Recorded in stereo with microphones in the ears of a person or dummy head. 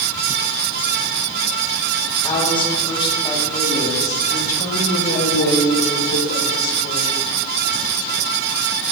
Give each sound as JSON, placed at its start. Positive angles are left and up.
{"t": 2.2, "sound": "a woman speaking", "side_deg": 25, "distance_m": 3.5}